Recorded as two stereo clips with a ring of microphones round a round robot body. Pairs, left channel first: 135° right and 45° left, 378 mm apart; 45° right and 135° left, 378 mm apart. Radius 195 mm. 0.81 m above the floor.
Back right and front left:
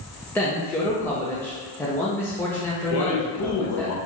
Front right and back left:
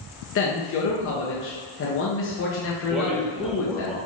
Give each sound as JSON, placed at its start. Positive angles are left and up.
{"t": 0.3, "sound": "a man speaking", "azimuth_deg": -55, "distance_m": 0.6}
{"t": 2.9, "sound": "a man speaking", "azimuth_deg": -135, "distance_m": 0.8}